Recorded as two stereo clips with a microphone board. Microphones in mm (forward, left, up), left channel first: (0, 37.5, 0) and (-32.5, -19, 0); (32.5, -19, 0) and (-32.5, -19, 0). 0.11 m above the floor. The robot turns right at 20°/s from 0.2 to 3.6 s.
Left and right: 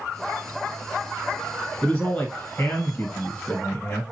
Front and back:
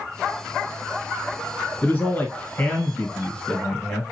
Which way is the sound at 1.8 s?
15° left.